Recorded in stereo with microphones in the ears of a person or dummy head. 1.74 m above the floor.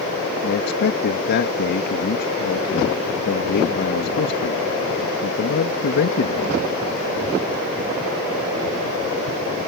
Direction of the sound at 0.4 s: 55° left (ahead or behind).